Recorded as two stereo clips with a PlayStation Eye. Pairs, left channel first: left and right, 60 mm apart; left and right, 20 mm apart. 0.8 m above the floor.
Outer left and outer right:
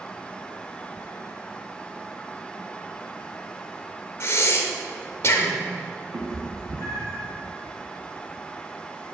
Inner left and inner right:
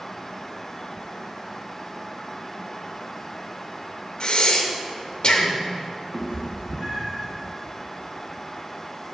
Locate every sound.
4.2 s breathing: 45° left (ahead or behind), 0.6 m
6.1 s a cat meowing: 50° right (ahead or behind), 1.1 m